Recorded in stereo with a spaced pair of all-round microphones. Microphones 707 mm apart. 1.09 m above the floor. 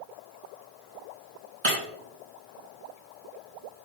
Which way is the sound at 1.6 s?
40° right (ahead or behind).